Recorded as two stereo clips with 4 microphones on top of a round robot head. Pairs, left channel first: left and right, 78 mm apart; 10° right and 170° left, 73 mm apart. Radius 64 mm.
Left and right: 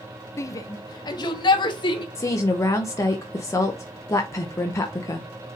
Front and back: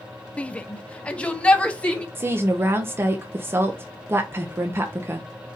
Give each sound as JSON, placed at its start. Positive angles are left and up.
{"t": 0.4, "sound": "a shout", "azimuth_deg": 60, "distance_m": 0.5}
{"t": 2.1, "sound": "a woman speaking", "azimuth_deg": 125, "distance_m": 0.6}